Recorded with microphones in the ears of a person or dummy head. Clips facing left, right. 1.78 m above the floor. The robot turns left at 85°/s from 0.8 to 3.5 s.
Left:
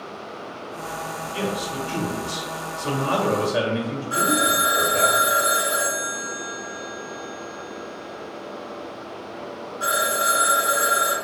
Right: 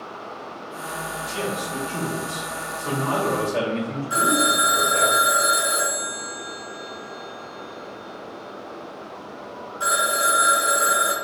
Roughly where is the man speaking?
Behind.